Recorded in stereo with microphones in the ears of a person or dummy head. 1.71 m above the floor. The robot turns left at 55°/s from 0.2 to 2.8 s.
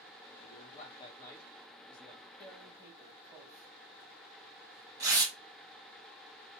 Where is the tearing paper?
5° left (ahead or behind), 1.4 m; by 5.3 s 20° right (ahead or behind), 1.4 m.